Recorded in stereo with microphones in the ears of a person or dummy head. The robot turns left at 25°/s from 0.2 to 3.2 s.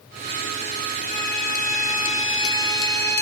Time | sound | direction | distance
1.0 | a violin | 75° left | 1.8 m